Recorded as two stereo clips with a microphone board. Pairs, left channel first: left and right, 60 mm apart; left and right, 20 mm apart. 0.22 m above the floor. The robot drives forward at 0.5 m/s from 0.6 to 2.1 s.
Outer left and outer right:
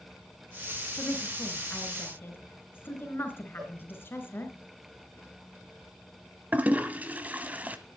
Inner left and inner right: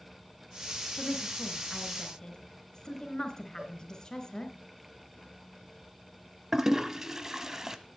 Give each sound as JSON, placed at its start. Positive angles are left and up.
{"t": 1.0, "sound": "a woman speaking", "side_deg": 40, "distance_m": 2.5}
{"t": 3.6, "sound": "a cowbell", "side_deg": -70, "distance_m": 4.0}
{"t": 6.5, "sound": "a toilet flushing", "side_deg": -25, "distance_m": 0.9}